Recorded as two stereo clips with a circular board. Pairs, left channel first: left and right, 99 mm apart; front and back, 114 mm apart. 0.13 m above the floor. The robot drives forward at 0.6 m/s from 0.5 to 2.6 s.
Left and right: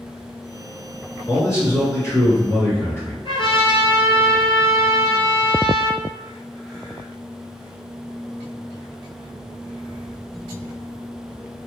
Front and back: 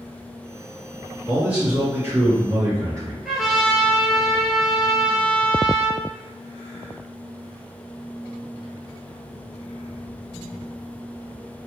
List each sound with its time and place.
1.3 s a man speaking: 105° left, 1.7 m; by 3.1 s 140° left, 2.0 m
3.2 s a trumpet: 95° left, 1.1 m